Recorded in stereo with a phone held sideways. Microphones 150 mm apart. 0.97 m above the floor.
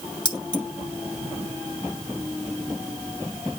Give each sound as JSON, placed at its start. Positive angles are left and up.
{"t": 0.2, "sound": "keys jangling", "side_deg": 35, "distance_m": 2.5}